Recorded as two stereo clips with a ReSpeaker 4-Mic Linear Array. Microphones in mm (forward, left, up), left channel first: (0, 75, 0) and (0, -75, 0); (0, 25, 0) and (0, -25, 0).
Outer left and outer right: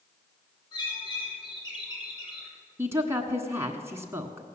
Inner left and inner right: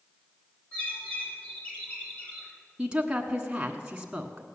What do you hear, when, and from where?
0.7 s a bird: 30° left (ahead or behind), 4.5 m
2.8 s a woman speaking: 15° right (ahead or behind), 1.2 m